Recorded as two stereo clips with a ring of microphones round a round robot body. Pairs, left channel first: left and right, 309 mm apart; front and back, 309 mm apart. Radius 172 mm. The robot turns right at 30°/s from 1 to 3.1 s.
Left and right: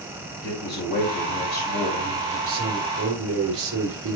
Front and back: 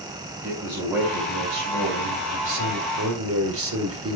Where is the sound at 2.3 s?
160° right, 1.9 m; by 4.2 s 135° right, 1.9 m.